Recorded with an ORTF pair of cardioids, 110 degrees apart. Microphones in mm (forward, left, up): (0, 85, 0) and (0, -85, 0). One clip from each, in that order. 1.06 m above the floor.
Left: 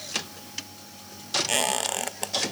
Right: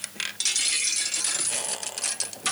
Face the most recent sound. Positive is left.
turn(degrees=60)